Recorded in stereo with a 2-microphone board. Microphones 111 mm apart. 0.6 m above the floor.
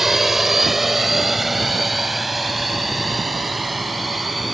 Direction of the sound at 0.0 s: Centre (ahead or behind).